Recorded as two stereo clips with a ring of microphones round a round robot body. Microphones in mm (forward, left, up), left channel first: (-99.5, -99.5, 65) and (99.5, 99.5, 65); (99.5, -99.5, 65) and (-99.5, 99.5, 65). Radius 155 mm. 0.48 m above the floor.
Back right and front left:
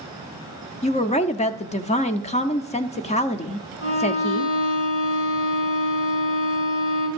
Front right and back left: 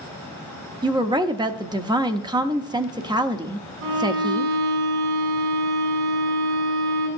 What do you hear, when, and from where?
0.8 s a woman speaking: 170° right, 0.8 m
3.8 s a violin: straight behind, 4.5 m